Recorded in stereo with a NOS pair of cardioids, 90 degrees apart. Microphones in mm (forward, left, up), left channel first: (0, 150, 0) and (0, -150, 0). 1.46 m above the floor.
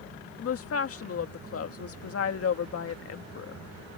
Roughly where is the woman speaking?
Ahead left.